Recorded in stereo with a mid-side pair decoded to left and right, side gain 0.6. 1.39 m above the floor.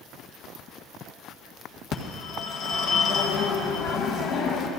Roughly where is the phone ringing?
Left.